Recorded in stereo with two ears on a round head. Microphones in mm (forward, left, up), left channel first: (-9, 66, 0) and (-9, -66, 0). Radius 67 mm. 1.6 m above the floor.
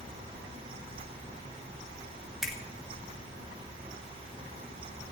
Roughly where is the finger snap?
Centre.